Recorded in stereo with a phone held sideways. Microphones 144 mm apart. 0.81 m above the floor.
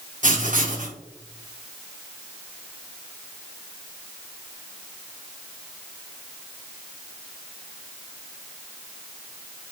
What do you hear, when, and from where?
0.2 s writing: 70° right (ahead or behind), 1.2 m